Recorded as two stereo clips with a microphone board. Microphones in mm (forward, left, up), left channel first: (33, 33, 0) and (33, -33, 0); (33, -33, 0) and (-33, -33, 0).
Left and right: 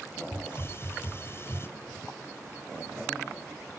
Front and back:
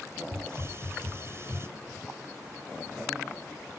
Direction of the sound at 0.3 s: 135° left.